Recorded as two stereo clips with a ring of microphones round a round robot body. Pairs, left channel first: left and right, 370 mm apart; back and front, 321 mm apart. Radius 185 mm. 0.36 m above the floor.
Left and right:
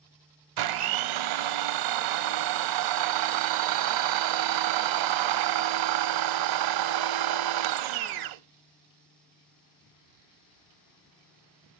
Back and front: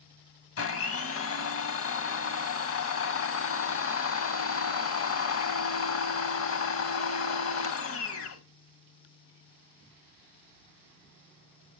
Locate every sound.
0.6 s a blender: 125° right, 0.7 m